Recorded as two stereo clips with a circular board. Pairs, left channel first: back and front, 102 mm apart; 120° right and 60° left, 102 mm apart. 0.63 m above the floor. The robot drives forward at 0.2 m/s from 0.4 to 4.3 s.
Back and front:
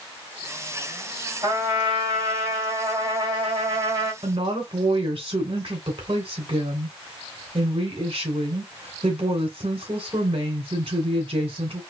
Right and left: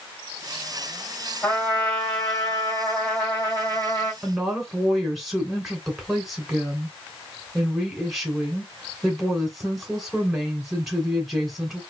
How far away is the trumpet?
About 3 m.